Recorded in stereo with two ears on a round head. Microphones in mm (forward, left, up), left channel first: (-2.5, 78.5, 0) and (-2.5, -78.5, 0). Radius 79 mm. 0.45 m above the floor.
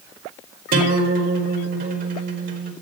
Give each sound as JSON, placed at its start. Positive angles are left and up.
{"t": 0.7, "sound": "a guitar", "side_deg": -50, "distance_m": 1.7}